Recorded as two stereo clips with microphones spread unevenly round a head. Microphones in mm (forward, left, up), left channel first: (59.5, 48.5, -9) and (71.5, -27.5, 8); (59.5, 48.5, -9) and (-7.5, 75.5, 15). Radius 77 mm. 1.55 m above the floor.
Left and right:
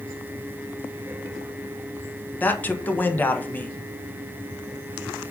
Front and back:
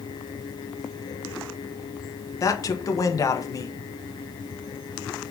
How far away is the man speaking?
About 1.5 m.